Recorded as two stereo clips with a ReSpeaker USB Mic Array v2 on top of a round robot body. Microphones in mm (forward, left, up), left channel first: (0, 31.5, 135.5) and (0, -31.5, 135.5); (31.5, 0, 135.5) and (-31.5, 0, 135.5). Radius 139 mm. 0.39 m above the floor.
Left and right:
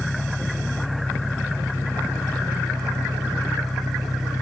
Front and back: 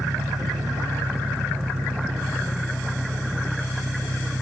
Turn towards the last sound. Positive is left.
turn(degrees=170)